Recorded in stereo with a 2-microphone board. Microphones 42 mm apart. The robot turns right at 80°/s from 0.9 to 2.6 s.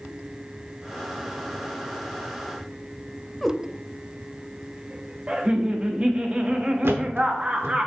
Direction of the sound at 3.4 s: 5° left (ahead or behind).